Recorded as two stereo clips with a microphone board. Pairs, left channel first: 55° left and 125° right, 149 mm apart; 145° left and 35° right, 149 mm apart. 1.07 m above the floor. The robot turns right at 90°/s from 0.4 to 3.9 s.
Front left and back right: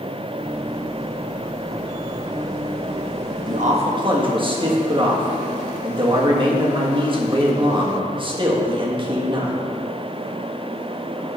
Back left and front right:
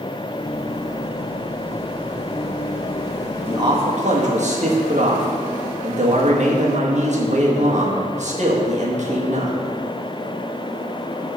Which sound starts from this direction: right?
A man speaking, at 3.5 s.